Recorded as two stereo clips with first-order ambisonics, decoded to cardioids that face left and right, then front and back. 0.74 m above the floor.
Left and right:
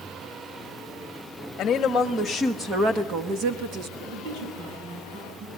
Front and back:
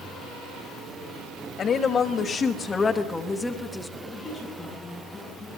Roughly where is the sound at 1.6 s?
Ahead left.